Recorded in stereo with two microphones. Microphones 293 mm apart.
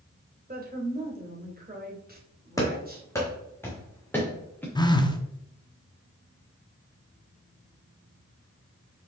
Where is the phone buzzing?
15° left (ahead or behind), 0.7 m.